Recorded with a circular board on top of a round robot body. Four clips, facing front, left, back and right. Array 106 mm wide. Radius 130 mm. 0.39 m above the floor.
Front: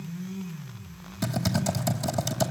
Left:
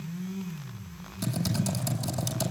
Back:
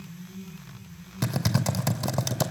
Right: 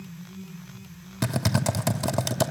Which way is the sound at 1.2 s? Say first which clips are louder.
Right 4 dB, even; 115° right.